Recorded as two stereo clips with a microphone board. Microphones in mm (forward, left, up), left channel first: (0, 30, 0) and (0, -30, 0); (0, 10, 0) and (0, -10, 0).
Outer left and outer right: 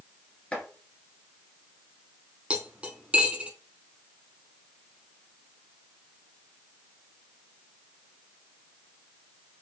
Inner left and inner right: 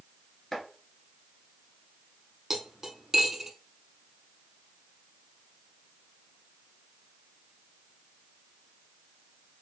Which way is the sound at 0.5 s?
20° left (ahead or behind).